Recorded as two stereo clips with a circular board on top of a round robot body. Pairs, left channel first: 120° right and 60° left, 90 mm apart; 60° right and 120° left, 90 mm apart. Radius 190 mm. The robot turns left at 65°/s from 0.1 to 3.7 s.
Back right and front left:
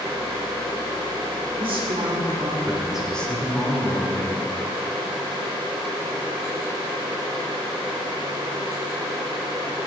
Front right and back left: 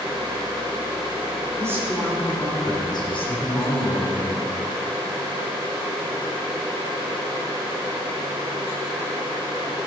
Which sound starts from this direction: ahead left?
A man speaking, at 1.6 s.